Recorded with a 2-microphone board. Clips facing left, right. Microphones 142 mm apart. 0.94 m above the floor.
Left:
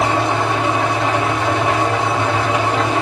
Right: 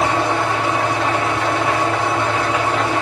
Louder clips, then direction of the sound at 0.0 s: Left 1 dB; 25° left (ahead or behind).